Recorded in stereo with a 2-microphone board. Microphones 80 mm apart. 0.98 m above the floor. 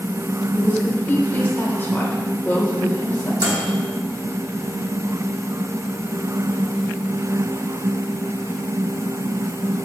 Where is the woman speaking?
25° left (ahead or behind), 3 m.